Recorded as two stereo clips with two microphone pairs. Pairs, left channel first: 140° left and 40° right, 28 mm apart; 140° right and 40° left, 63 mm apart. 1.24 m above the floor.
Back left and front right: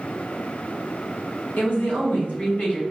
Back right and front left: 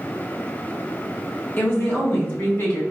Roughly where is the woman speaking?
Behind.